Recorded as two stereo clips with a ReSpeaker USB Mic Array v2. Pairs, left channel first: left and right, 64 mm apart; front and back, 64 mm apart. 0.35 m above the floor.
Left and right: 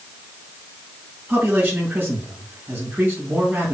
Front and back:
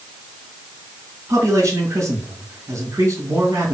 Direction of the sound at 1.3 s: 155° right.